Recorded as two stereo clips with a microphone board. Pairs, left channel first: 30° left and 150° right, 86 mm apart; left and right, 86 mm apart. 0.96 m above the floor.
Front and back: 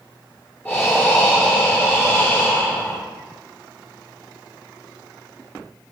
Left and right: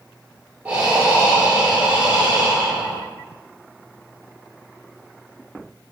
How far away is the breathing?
About 1.1 m.